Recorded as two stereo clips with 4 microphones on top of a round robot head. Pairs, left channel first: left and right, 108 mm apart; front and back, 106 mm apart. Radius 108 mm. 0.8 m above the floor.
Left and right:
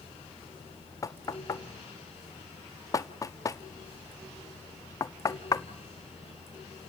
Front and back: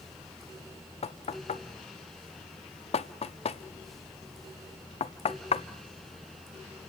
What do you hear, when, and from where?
1.0 s knocking: 30° left, 0.8 m